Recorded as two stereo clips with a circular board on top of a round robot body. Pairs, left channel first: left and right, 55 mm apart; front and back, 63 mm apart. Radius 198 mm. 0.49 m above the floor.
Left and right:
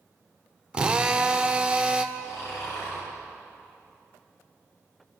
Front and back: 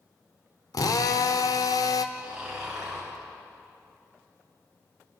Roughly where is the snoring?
Left.